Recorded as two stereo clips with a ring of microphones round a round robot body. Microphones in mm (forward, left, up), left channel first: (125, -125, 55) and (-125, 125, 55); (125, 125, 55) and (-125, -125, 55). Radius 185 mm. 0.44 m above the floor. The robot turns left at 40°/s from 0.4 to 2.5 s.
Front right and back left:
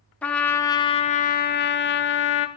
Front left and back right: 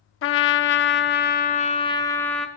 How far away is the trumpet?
About 0.5 m.